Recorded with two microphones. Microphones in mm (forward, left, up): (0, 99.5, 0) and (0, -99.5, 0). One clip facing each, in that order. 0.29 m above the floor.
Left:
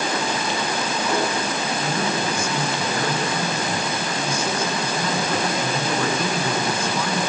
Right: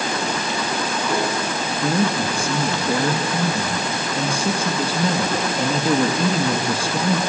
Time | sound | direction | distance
1.8 | a man speaking | 35° right (ahead or behind) | 2.5 m